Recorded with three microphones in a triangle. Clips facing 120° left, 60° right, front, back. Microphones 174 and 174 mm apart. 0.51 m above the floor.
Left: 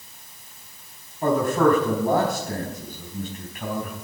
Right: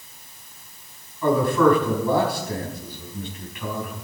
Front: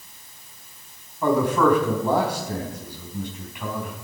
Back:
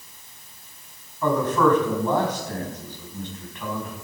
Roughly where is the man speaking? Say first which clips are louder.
Right 1 dB, front 1 dB; left.